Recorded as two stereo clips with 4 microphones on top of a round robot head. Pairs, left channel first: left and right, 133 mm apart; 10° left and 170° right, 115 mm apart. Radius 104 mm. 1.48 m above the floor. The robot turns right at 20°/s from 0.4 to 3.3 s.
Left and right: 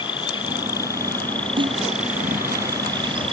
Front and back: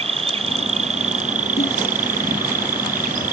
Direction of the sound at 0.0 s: 155° left.